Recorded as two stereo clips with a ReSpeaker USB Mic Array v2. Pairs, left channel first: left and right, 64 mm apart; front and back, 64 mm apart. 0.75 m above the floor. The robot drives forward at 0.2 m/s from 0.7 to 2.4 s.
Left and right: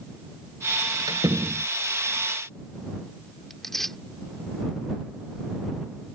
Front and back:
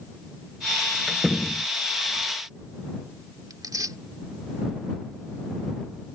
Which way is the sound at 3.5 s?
175° left.